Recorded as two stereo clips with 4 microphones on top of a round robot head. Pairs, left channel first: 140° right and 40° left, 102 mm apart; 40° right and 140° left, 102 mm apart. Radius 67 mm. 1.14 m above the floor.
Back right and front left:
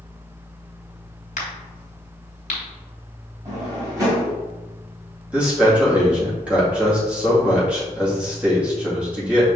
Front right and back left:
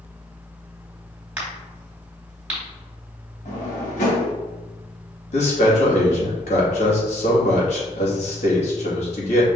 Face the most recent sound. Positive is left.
turn(degrees=-40)